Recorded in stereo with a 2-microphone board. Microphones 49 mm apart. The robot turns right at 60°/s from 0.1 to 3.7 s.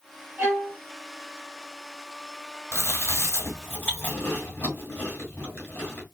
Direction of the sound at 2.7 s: 70° left (ahead or behind).